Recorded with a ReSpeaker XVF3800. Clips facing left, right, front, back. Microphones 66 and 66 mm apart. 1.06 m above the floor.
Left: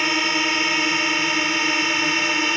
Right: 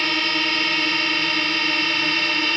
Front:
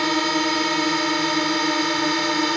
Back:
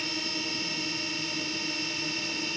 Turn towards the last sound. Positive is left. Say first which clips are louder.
# left 1 dB, front 15 dB
turn(degrees=15)